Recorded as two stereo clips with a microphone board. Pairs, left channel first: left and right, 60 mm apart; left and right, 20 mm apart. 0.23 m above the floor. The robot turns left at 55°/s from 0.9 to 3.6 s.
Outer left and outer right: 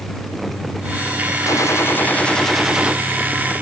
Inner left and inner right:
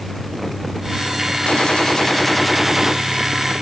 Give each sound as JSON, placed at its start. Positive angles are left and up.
{"t": 1.5, "sound": "a gunshot", "azimuth_deg": 65}